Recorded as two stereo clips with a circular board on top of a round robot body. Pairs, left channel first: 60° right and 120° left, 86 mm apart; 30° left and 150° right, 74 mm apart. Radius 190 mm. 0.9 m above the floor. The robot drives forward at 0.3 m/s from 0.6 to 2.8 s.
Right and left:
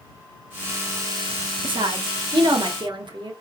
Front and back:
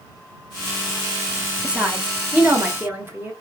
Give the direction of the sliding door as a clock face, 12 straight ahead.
I don't hear a sliding door.